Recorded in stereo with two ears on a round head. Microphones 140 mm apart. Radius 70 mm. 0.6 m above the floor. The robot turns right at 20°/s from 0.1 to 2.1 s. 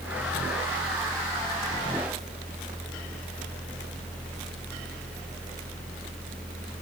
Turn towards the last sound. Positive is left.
No sound to turn to.